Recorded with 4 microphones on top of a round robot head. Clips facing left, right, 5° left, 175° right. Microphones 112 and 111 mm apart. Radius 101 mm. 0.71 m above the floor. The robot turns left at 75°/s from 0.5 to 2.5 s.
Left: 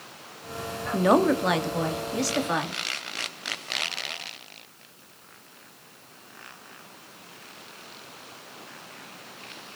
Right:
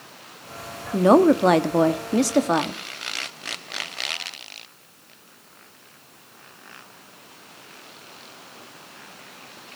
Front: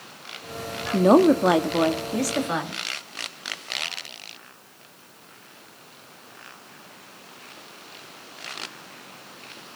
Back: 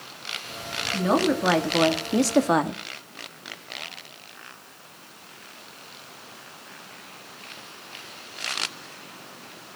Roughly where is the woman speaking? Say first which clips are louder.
Right 5 dB, front 7 dB; ahead.